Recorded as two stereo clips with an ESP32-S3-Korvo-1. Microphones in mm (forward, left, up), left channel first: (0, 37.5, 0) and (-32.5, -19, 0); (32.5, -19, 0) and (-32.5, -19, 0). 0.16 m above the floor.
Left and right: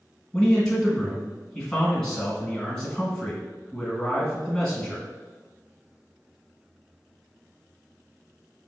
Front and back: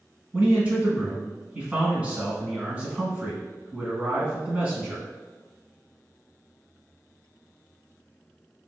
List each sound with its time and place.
0.3 s a man speaking: 130° left, 1.2 m